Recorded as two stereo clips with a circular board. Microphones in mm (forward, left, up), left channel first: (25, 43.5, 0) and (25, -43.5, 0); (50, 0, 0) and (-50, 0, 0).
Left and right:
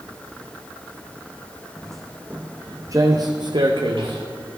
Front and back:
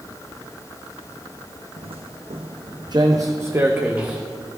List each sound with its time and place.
1.8 s footsteps: 170° left, 1.0 m; by 4.2 s 100° right, 1.5 m